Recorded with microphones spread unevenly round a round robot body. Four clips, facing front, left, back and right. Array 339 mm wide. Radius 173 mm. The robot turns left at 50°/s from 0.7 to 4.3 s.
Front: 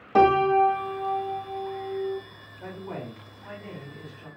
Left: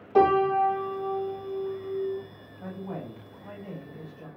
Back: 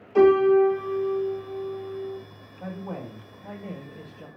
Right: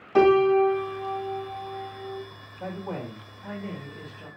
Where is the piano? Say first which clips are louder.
Right 3 dB, back 2 dB; 20° right, 2.5 m; by 2.2 s 95° right, 2.5 m.